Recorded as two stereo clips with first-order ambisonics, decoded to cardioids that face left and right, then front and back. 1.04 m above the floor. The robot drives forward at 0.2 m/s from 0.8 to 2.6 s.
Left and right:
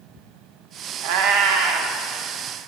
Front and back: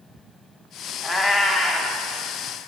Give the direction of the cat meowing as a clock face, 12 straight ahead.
3 o'clock.